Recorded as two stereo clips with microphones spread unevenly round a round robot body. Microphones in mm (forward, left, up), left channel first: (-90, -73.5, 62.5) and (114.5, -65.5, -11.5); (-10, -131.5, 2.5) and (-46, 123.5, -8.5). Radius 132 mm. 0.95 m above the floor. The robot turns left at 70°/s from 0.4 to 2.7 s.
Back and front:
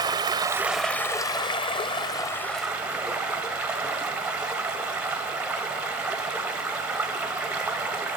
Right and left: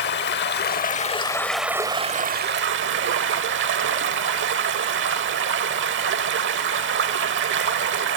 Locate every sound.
0.0 s running water: 85° right, 0.8 m; by 8.2 s 110° left, 0.8 m